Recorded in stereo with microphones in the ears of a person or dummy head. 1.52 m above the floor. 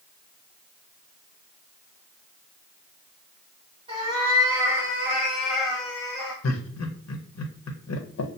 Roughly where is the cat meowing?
Right.